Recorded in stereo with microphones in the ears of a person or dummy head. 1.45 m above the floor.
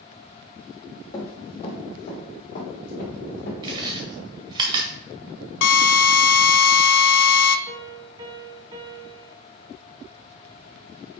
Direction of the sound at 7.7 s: 25° right (ahead or behind).